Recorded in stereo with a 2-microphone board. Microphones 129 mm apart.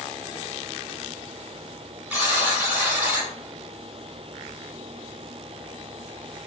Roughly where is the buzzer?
Centre.